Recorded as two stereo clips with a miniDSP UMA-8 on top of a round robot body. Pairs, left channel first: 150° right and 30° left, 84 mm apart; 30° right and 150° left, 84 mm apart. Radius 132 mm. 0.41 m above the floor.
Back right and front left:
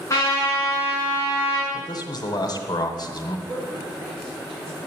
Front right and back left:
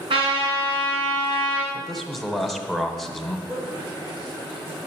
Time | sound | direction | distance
0.1 | a trumpet | 155° left | 4 m
1.7 | a man speaking | 120° right | 1.7 m
3.5 | a man speaking | 125° left | 6.5 m